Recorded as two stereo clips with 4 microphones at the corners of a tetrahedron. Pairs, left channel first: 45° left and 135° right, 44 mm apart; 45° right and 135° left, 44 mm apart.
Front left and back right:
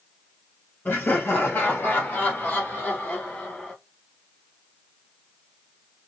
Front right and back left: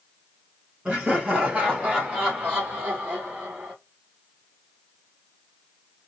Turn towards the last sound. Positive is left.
turn(degrees=110)